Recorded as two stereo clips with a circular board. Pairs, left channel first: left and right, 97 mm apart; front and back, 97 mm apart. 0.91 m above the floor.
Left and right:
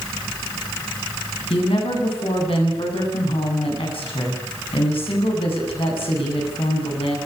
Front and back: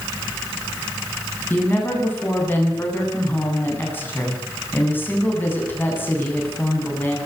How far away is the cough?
No cough in this recording.